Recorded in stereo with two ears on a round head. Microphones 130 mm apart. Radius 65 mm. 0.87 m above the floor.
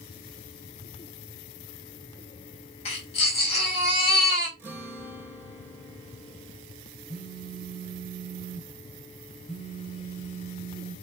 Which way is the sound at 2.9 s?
45° left (ahead or behind).